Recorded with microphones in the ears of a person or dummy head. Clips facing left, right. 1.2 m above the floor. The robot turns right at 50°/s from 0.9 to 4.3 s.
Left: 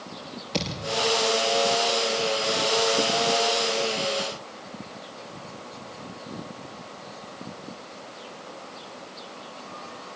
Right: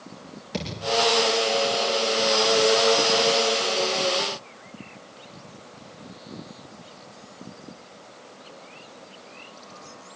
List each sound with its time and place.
0.5 s a thud: 25° right (ahead or behind), 8 m